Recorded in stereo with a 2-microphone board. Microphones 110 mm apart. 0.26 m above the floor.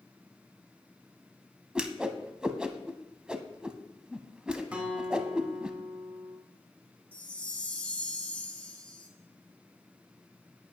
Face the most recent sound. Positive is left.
turn(degrees=15)  # may be behind; listen again after turning